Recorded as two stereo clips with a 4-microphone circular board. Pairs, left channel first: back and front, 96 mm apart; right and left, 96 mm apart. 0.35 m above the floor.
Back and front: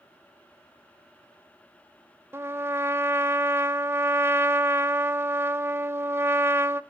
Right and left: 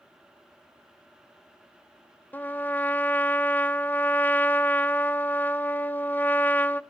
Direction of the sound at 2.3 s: 35° right.